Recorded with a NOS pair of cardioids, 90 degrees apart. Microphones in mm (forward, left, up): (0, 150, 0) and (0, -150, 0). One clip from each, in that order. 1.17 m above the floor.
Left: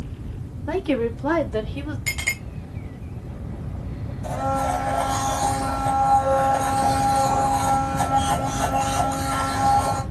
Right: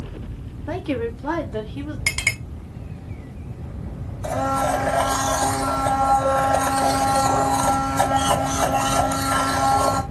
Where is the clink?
50° right, 3 m.